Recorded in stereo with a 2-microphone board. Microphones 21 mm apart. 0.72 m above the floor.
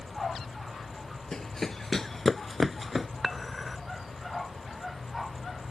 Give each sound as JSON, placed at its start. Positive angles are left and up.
{"t": 1.3, "sound": "running footsteps", "side_deg": 25}
{"t": 3.2, "sound": "dishes clattering", "side_deg": 5}